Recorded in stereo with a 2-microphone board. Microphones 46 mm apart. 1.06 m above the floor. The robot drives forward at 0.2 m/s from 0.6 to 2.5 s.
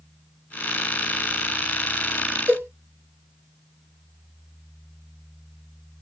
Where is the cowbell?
55° right (ahead or behind), 1.0 m.